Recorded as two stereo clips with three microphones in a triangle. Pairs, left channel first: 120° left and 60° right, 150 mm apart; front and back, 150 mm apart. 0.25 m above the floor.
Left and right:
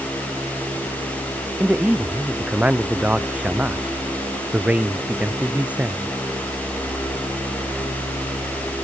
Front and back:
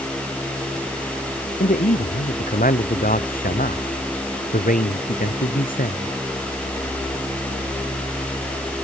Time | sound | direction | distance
1.6 | a man speaking | 20° left | ?